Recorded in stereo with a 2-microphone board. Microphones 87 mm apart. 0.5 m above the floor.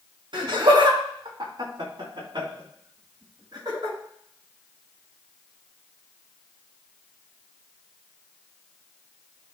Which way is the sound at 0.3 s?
70° right (ahead or behind).